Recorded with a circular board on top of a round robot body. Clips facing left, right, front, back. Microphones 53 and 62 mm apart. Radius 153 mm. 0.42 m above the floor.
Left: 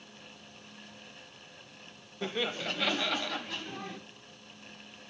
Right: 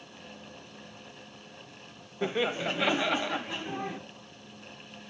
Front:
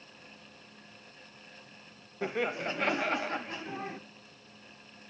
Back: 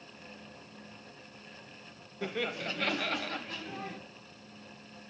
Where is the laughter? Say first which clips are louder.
Right 5 dB, front 3 dB; 40° right, 0.8 m.